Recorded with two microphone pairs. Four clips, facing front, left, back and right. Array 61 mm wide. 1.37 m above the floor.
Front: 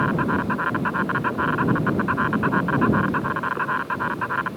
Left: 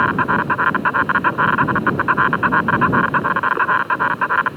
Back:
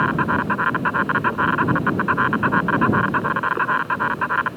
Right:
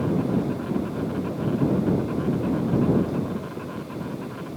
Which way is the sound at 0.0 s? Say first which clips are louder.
Left 8 dB, back 2 dB; 105° left.